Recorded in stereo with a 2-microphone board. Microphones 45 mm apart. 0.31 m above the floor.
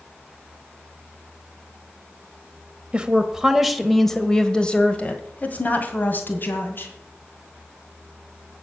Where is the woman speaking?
20° right (ahead or behind), 1.3 m; by 6.9 s 55° left (ahead or behind), 2.5 m.